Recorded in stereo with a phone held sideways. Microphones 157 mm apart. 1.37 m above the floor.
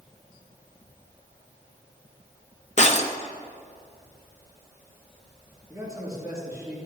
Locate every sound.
2.8 s breaking glass: 50° left (ahead or behind), 0.8 m
5.7 s a man speaking: 20° right (ahead or behind), 4 m